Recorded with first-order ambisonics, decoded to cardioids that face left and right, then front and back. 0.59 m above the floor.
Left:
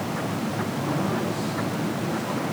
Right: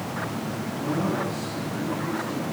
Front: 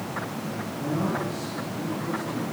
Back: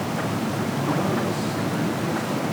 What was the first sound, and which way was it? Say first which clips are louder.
A man speaking: right 2 dB, back 3 dB; 160° left.